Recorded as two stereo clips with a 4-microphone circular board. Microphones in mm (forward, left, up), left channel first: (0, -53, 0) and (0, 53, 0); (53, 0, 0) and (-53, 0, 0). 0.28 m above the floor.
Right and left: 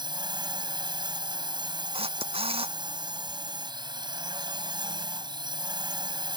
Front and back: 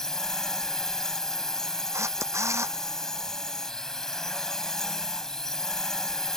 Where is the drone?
85° left.